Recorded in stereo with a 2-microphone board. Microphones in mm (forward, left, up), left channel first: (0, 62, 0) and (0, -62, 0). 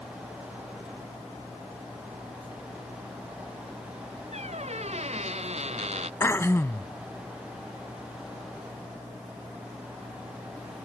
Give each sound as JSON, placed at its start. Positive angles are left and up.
{"t": 4.3, "sound": "a squeak", "side_deg": -60}
{"t": 6.2, "sound": "throat clearing", "side_deg": 20}